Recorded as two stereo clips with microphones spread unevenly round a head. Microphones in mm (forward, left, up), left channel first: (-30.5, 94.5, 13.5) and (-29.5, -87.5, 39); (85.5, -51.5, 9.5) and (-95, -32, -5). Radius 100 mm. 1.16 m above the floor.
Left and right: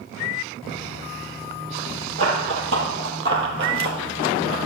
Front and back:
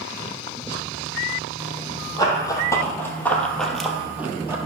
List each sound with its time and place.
2.2 s running footsteps: 70° right, 2.5 m; by 4.6 s 110° right, 1.9 m